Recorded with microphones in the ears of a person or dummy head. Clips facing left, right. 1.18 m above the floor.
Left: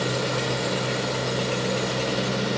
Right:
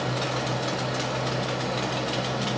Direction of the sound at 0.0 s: 65° left (ahead or behind).